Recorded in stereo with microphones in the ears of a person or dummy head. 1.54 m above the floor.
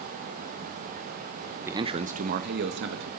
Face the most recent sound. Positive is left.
turn(degrees=-65)  # may be behind; listen again after turning